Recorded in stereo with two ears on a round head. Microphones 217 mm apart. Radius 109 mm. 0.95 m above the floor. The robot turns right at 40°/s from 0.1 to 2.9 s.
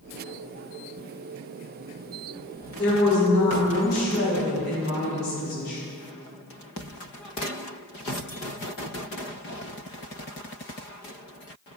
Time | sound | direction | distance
2.8 | a woman speaking | 35° left (ahead or behind) | 3 m